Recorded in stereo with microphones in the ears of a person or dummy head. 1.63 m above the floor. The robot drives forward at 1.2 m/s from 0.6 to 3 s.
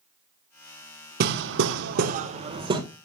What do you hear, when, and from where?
1.2 s hammering: 55° right (ahead or behind), 1.1 m; by 2.8 s 30° right (ahead or behind), 1.7 m